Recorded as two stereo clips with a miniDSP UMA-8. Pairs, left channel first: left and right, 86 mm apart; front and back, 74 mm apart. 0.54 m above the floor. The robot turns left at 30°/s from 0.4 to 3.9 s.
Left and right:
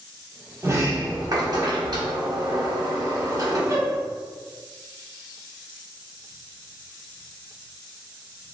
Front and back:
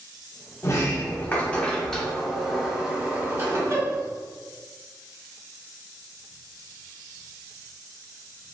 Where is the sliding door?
40° right, 0.8 m; by 4.0 s 140° right, 0.8 m.